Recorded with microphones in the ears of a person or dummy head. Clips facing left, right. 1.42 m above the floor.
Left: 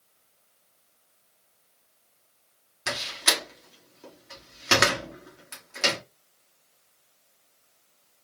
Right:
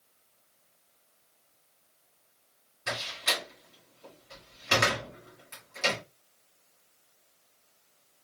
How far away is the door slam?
About 2.5 m.